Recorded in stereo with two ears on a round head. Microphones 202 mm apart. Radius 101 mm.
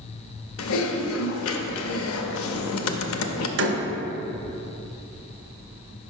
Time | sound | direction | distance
0.6 | typing on a keyboard | 70° left (ahead or behind) | 0.5 m
3.6 | a door slam | 60° right (ahead or behind) | 0.9 m